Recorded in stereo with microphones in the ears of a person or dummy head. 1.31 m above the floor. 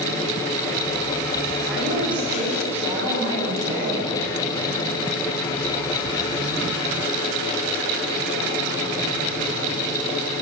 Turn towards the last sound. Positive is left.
turn(degrees=-20)  # may be behind; listen again after turning